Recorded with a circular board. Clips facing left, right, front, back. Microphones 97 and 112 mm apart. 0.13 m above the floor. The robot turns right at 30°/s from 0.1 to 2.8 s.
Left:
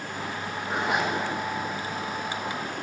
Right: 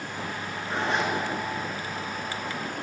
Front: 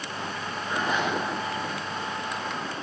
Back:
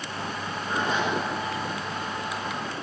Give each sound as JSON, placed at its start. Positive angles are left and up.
{"t": 0.7, "sound": "a zipper", "azimuth_deg": 150, "distance_m": 1.5}